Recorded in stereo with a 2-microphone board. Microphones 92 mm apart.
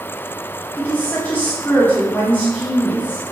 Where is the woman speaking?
20° left (ahead or behind), 0.8 m.